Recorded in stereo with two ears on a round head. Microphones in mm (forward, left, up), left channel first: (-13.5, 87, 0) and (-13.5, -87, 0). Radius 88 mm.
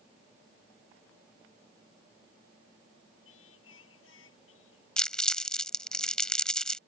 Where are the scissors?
I don't hear scissors.